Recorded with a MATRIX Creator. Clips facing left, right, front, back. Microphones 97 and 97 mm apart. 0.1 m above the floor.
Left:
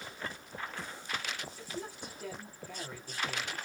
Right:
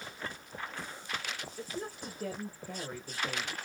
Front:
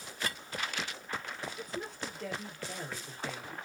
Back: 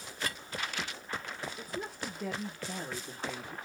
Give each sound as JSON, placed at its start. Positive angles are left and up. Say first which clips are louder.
{"t": 1.6, "sound": "a woman speaking", "louder": "right 2 dB, even", "azimuth_deg": -100, "distance_m": 1.7}